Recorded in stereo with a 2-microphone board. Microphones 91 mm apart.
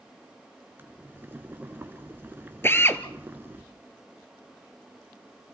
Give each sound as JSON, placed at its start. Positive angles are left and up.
{"t": 0.8, "sound": "boiling", "side_deg": -25, "distance_m": 1.4}
{"t": 2.6, "sound": "a drill", "side_deg": 25, "distance_m": 0.9}